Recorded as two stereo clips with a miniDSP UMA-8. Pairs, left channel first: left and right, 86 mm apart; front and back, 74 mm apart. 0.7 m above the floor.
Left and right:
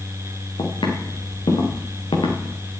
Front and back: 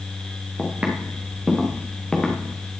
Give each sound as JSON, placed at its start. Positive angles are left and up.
{"t": 0.6, "sound": "footsteps", "azimuth_deg": 110, "distance_m": 4.0}